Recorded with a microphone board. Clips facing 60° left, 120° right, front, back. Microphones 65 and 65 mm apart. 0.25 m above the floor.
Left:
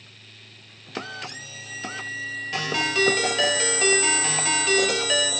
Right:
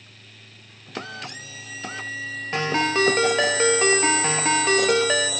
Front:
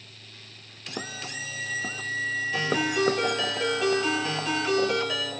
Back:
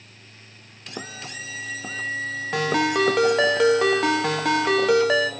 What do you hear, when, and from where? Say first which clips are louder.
2.5 s a ringtone: right 4 dB, back 6 dB; 175° right, 0.5 m